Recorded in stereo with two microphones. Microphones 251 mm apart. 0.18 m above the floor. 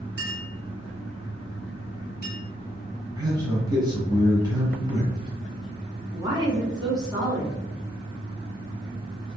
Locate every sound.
0.2 s a clink: 40° left (ahead or behind), 1.3 m
3.2 s a man speaking: 15° right (ahead or behind), 1.3 m
6.1 s a woman speaking: 15° right (ahead or behind), 1.8 m